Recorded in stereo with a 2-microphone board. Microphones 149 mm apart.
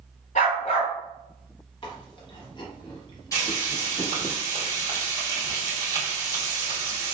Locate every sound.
0.3 s a dog barking: 60° left (ahead or behind), 1.3 m
1.8 s chewing: 35° left (ahead or behind), 0.8 m
3.3 s frying: 25° left (ahead or behind), 1.8 m